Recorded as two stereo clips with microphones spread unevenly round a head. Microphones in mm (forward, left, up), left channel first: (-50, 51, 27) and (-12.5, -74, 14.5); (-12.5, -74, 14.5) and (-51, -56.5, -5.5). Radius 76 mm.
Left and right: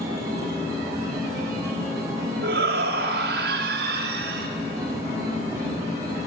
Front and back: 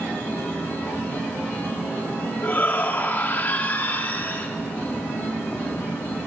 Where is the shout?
60° right, 4 m.